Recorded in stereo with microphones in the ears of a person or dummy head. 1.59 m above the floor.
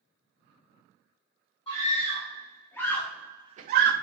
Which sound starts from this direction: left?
A scream, at 1.7 s.